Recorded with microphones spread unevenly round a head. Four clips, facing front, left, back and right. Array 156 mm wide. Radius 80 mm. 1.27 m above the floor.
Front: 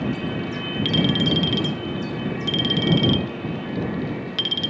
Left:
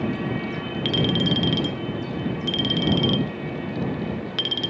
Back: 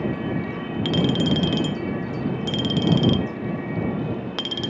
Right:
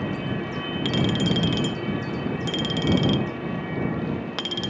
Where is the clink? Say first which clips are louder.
Left 1 dB, back 1 dB; 175° right.